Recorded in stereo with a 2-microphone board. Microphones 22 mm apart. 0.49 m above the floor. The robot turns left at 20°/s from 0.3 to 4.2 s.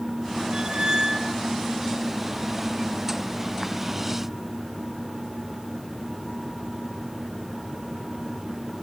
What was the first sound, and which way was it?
A squeak, 60° right (ahead or behind).